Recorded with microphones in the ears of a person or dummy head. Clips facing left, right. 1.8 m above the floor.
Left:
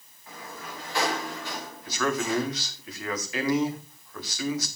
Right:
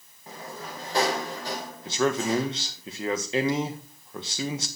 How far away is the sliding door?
About 2.5 m.